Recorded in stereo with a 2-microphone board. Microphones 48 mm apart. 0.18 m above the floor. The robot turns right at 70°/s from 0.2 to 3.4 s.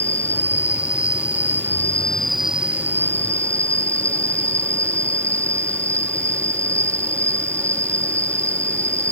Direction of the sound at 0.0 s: 30° left.